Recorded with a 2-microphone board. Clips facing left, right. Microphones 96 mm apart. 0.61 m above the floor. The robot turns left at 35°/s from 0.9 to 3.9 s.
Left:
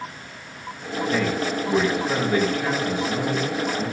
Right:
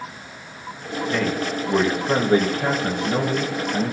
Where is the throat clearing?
No throat clearing in this recording.